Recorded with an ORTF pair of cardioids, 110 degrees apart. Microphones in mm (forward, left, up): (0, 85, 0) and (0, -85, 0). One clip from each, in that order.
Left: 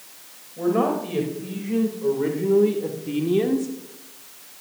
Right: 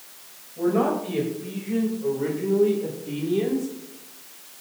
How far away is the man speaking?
About 3 m.